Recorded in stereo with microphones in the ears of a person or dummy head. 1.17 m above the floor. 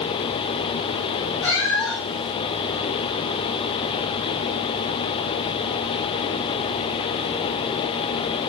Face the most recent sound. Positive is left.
turn(degrees=10)  # may be behind; listen again after turning